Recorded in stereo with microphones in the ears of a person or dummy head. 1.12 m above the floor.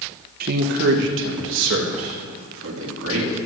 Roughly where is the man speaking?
Right.